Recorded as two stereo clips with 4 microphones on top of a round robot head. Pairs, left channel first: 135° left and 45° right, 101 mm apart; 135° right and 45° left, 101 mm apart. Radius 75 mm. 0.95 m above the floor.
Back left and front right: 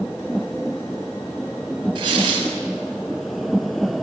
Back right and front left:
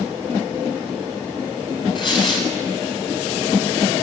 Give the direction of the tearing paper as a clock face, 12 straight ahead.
3 o'clock.